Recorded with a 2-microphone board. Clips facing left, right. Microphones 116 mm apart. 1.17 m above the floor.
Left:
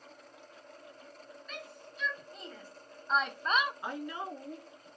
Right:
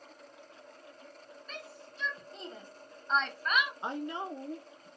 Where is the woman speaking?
25° right (ahead or behind), 0.6 m.